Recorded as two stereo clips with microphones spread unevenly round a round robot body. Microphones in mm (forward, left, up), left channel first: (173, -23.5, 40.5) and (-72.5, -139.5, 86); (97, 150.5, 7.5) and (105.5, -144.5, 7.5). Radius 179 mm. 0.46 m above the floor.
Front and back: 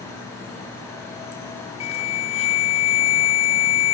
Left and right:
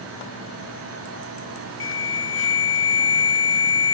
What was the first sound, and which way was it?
An alarm, 70° left.